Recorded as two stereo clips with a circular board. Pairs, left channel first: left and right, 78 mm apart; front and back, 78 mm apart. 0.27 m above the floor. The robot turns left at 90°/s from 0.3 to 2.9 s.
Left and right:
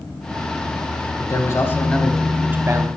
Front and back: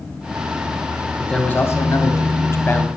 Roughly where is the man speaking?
Left.